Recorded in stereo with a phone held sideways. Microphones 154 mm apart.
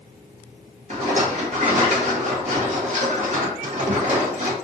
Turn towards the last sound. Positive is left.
turn(degrees=-50)  # may be behind; listen again after turning